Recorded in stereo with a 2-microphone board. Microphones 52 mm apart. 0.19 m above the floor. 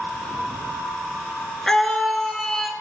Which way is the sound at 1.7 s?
10° left (ahead or behind).